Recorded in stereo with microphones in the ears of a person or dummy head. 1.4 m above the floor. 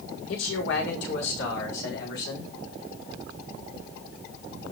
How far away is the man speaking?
About 6.5 m.